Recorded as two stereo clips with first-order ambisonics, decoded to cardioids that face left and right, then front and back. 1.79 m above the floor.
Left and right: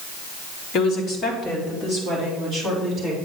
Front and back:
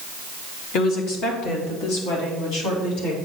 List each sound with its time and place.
0.7 s a woman speaking: 40° left, 1.8 m; by 3.1 s 5° left, 4.5 m